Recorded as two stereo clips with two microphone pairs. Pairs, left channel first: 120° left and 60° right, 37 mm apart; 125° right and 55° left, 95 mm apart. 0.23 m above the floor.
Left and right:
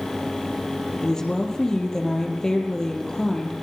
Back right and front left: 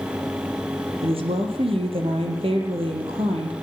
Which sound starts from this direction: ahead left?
A woman speaking, at 1.0 s.